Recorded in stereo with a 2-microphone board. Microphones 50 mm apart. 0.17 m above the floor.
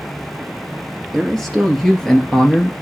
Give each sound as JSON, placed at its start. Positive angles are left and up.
{"t": 1.1, "sound": "a man speaking", "side_deg": 5, "distance_m": 3.0}